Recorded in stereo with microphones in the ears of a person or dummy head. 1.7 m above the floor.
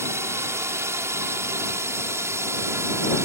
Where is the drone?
10° right (ahead or behind).